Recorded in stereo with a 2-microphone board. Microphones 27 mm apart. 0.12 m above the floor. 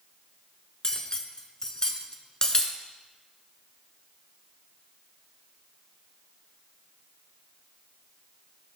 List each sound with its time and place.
0.8 s cutlery clinking: 25° left (ahead or behind), 0.9 m